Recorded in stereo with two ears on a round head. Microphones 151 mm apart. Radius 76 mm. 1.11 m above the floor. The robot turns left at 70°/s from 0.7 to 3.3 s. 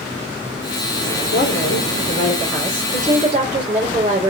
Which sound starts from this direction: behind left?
A woman speaking, at 1.3 s.